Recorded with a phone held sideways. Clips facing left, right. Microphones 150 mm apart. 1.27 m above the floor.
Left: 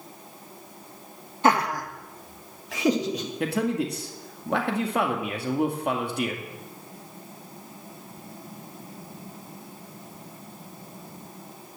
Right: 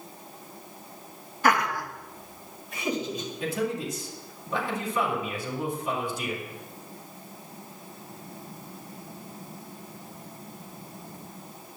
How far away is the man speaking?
About 2.0 m.